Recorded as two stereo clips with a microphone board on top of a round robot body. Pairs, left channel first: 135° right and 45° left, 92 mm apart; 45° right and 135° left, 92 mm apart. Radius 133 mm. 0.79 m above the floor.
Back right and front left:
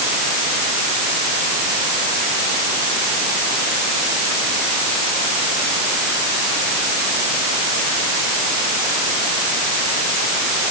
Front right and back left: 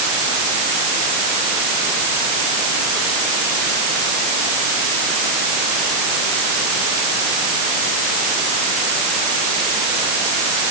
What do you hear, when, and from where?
Only background noise.